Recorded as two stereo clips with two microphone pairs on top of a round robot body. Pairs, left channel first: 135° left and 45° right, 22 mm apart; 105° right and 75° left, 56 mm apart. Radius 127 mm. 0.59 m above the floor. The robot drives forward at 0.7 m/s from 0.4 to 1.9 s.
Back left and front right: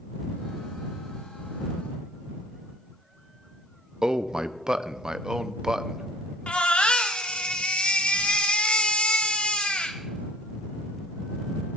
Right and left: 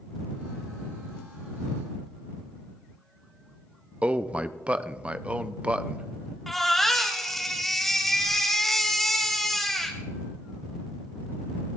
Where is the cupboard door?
I don't hear a cupboard door.